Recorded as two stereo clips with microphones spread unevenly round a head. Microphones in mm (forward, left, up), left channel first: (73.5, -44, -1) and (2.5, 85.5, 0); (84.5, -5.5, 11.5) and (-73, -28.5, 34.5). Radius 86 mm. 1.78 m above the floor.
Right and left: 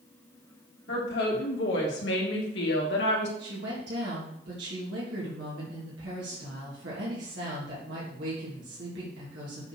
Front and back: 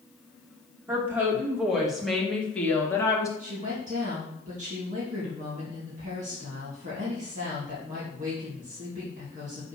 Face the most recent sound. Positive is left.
turn(degrees=140)